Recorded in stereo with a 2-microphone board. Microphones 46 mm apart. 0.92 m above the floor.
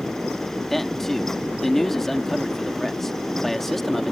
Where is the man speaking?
5° left (ahead or behind).